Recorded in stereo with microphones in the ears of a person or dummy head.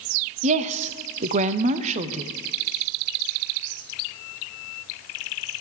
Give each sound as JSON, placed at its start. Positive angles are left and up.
{"t": 0.4, "sound": "a woman speaking", "side_deg": -45, "distance_m": 0.5}